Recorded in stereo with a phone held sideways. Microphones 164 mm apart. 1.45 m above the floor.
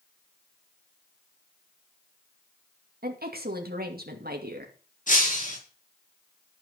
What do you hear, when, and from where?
3.0 s a woman speaking: 70° right (ahead or behind), 2.5 m
5.1 s breaking glass: 50° left (ahead or behind), 5.5 m